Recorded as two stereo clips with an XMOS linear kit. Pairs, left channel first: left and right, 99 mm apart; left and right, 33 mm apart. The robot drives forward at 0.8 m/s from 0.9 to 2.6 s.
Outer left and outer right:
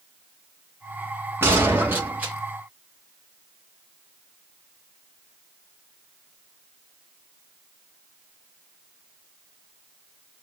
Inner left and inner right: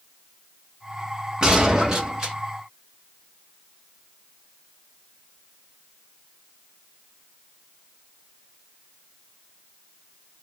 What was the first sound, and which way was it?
A gunshot, 25° right (ahead or behind).